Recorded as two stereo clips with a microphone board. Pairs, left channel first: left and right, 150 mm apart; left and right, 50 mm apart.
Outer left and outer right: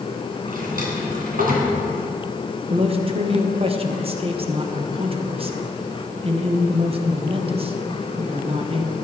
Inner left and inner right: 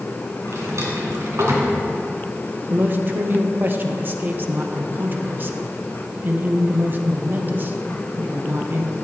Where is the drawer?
65° right (ahead or behind), 2.5 m.